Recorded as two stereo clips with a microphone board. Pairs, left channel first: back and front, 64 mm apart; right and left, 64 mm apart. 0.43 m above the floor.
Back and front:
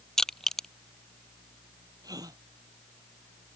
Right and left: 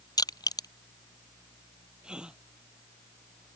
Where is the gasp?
15° left.